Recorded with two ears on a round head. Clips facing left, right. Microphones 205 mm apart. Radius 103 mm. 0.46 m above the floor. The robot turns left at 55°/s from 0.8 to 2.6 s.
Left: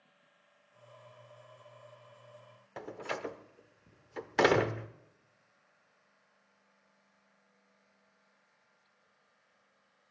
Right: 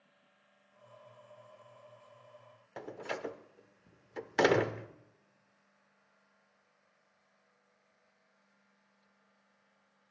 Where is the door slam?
Centre (ahead or behind), 0.8 m.